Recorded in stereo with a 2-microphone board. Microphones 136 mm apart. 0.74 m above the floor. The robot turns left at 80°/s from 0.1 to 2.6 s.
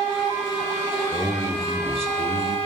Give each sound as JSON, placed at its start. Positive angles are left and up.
{"t": 1.1, "sound": "a man speaking", "azimuth_deg": 20, "distance_m": 2.5}